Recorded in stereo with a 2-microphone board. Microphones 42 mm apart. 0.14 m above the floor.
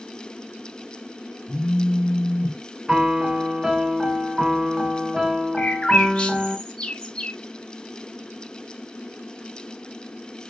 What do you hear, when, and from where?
1.5 s a phone buzzing: 30° left (ahead or behind), 1.8 m
2.9 s a piano: 15° right (ahead or behind), 0.7 m
5.6 s a bird: 20° left (ahead or behind), 0.8 m